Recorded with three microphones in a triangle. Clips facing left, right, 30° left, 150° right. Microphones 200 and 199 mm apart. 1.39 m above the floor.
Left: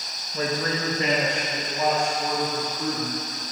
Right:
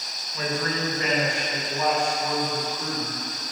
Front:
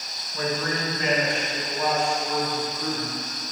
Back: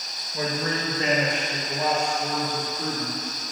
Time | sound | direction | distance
0.3 | a man speaking | 140° left | 1.2 m